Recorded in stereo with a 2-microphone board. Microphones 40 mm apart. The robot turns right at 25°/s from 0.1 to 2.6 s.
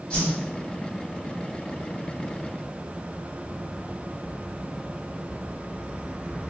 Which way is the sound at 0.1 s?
25° left (ahead or behind).